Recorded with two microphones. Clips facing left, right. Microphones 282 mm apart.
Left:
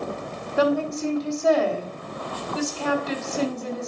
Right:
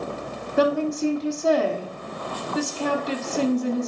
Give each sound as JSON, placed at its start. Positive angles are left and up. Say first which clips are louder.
{"t": 0.6, "sound": "a woman speaking", "louder": "right 1 dB", "side_deg": -20, "distance_m": 1.3}